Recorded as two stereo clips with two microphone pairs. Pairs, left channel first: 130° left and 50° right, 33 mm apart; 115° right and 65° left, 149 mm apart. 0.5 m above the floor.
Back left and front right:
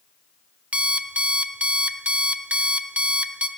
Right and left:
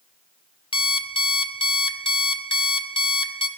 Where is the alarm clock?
75° right, 0.6 m.